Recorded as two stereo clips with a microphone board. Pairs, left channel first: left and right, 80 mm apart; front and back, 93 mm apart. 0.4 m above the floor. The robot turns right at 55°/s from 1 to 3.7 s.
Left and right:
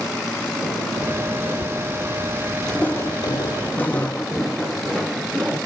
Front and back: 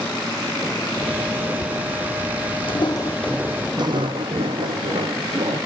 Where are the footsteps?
5° left, 0.8 m; by 5.6 s 170° right, 2 m.